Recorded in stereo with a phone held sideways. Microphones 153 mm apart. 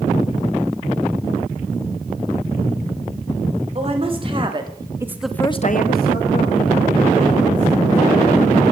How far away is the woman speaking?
About 3 m.